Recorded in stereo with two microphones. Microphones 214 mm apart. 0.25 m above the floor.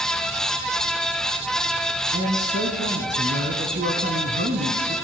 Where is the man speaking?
55° right (ahead or behind), 2.5 m.